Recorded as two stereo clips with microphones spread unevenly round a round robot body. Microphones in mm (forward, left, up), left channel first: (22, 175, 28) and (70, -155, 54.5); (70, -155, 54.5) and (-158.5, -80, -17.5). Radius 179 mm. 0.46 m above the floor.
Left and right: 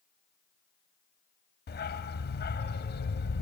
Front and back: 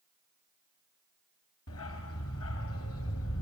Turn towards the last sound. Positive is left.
turn(degrees=35)